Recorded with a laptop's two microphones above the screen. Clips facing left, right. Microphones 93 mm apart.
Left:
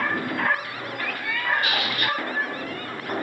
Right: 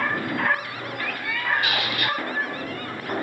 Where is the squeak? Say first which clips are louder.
Even; 40° left (ahead or behind), 1.7 m.